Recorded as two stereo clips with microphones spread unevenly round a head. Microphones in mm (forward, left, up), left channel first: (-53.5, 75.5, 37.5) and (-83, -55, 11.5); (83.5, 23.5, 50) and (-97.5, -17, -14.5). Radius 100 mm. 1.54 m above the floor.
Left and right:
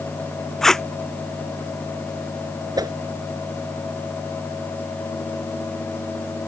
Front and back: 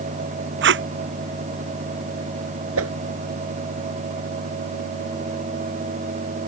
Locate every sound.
0.6 s tape being pulled: 165° left
2.8 s a whoosh: 165° right